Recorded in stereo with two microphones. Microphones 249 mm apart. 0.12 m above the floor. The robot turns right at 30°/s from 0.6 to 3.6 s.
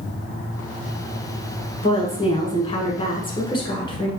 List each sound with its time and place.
1.8 s a woman speaking: 20° left (ahead or behind), 1.1 m